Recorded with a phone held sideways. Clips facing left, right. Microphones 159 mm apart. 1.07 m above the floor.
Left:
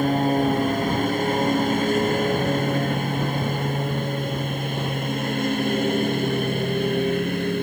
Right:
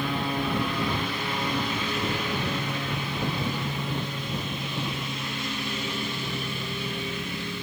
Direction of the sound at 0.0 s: 45° left (ahead or behind).